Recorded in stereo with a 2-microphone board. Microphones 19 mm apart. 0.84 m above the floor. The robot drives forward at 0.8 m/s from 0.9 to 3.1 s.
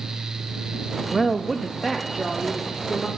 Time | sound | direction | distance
1.1 | a woman speaking | 5° right (ahead or behind) | 0.7 m